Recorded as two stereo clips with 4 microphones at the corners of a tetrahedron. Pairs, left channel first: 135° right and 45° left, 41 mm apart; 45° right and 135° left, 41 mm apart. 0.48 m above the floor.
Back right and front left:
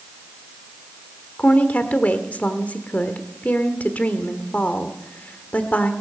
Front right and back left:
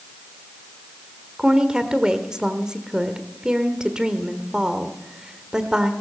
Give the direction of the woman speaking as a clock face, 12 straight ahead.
5 o'clock.